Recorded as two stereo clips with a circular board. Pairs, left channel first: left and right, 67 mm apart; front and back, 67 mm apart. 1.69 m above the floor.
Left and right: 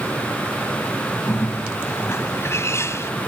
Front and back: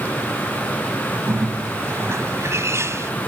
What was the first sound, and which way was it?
A bird, 135° left.